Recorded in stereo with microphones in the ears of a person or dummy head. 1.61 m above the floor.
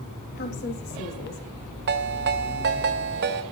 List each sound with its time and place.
0.3 s a woman speaking: 50° left (ahead or behind), 3.5 m
1.9 s a ringtone: 55° right (ahead or behind), 1.4 m